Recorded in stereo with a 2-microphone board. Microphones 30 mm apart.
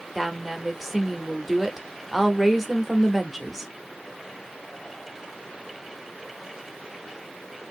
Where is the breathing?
No breathing in this recording.